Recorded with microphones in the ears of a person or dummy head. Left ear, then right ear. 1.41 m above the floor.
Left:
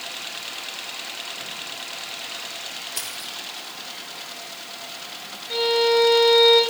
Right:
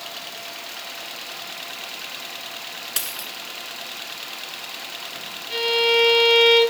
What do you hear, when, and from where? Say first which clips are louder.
3.0 s a dropped coin: right 2 dB; 60° right (ahead or behind), 1.5 m
5.5 s a violin: even; 30° right (ahead or behind), 4.5 m